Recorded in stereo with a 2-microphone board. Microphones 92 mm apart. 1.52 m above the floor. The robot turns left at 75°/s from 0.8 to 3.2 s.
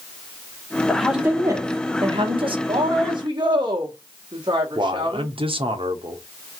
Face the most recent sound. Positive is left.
turn(degrees=-80)